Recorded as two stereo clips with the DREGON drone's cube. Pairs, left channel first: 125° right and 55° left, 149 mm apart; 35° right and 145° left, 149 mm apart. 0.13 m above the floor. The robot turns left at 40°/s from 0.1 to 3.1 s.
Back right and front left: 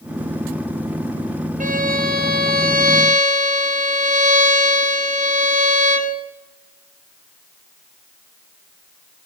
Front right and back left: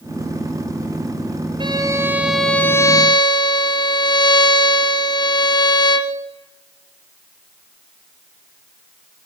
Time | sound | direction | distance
1.6 | a violin | 85° left | 3.5 m